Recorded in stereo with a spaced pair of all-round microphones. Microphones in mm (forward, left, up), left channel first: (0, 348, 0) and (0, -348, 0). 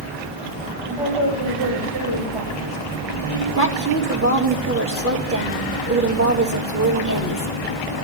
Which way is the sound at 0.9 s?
45° right (ahead or behind).